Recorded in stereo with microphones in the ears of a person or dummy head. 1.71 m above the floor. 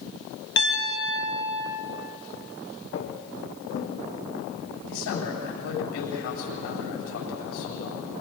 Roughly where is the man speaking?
Left.